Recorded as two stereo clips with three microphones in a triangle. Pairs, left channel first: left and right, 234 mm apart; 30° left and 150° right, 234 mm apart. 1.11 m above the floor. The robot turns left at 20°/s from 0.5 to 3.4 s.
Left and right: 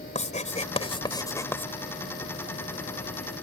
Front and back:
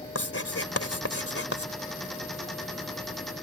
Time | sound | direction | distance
0.1 | writing | 30° left | ?